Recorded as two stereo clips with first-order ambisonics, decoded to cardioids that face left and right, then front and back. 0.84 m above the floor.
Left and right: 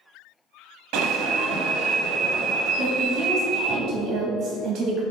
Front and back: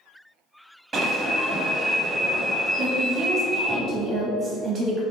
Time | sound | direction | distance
0.9 | an alarm | 110° right | 0.7 m
2.8 | a woman speaking | 125° right | 0.8 m